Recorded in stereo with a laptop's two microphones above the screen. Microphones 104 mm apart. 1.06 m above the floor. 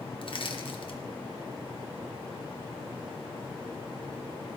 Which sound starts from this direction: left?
Crushing, at 0.2 s.